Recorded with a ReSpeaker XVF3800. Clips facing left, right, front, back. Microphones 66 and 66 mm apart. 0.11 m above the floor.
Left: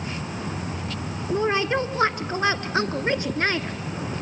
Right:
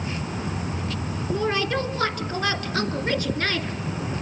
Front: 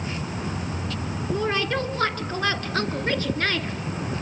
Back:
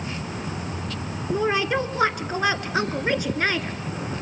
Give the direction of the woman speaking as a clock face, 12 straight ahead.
8 o'clock.